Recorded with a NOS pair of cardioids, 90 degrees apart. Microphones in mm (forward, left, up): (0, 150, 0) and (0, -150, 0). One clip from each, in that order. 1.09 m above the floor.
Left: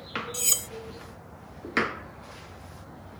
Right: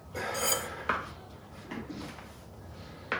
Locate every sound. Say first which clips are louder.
0.3 s cutlery clinking: left 2 dB; 45° left, 1.5 m